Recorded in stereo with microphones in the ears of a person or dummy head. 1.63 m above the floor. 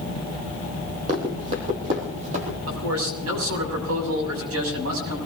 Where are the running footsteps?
30° right (ahead or behind), 2.5 m; by 2.6 s 35° right (ahead or behind), 3.5 m.